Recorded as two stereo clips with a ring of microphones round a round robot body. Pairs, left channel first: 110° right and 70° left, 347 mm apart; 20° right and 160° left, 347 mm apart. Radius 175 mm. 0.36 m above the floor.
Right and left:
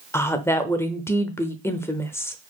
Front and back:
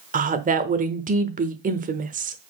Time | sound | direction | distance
0.1 | a woman speaking | 175° left | 0.8 m